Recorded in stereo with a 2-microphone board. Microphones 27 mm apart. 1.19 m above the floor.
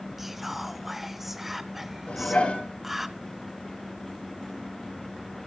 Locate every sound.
0.2 s whispering: 15° right (ahead or behind), 0.8 m
2.1 s dishes clattering: 45° left (ahead or behind), 9.5 m